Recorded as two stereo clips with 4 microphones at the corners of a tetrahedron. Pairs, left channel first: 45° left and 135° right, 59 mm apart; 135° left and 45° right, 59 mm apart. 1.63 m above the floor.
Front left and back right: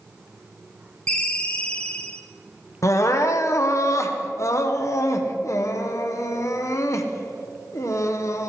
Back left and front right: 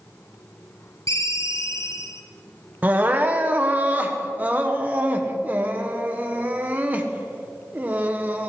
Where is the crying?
15° left, 1.0 m.